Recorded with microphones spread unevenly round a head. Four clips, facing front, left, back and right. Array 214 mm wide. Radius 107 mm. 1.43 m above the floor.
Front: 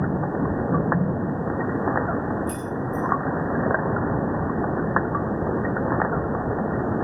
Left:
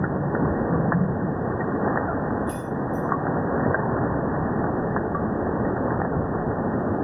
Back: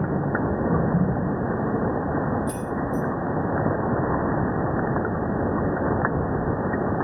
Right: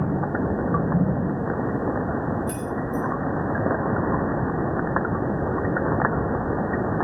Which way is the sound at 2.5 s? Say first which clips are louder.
Even, back 1 dB; 105° right.